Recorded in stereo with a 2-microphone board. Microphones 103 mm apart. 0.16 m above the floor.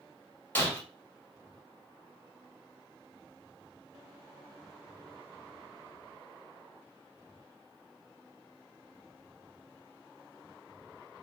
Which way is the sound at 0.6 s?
20° left (ahead or behind).